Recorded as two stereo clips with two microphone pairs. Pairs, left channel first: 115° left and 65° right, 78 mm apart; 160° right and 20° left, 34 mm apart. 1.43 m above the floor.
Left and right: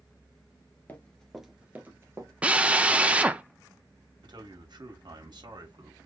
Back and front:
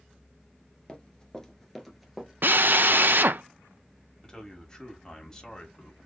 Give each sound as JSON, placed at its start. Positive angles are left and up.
{"t": 0.9, "sound": "running footsteps", "azimuth_deg": 160, "distance_m": 1.5}
{"t": 2.4, "sound": "a drill", "azimuth_deg": 5, "distance_m": 0.6}
{"t": 4.2, "sound": "a man speaking", "azimuth_deg": -90, "distance_m": 2.5}